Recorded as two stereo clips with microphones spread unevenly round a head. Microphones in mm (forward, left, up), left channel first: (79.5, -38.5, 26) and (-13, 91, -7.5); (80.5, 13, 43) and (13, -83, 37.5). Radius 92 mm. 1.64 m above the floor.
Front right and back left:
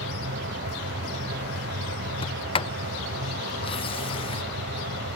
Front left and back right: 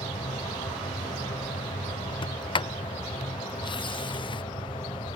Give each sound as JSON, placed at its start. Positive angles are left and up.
{"t": 0.0, "sound": "a machine running", "azimuth_deg": 120}
{"t": 2.2, "sound": "a sliding door", "azimuth_deg": 5}